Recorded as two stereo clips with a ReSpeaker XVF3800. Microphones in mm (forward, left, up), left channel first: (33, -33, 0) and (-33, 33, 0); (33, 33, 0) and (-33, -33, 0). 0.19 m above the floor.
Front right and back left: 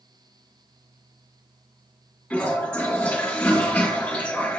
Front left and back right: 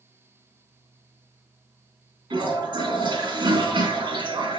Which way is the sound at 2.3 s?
120° right.